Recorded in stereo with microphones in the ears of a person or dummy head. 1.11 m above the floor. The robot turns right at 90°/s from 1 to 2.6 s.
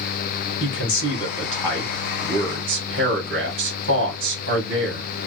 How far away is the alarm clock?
No alarm clock in this recording.